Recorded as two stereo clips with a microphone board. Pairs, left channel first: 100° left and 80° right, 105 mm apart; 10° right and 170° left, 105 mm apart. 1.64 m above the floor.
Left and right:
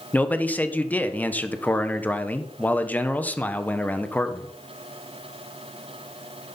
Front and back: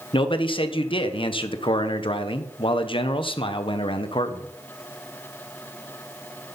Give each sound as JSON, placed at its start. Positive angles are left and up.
{"t": 0.1, "sound": "a man speaking", "azimuth_deg": 25, "distance_m": 1.2}